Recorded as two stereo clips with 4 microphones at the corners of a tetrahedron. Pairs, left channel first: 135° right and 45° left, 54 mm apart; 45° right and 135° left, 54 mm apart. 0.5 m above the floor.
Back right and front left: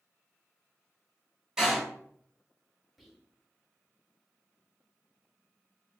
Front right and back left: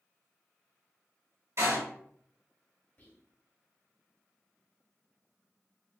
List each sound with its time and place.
1.6 s a door slam: 125° left, 1.0 m
3.0 s whispering: 40° right, 0.9 m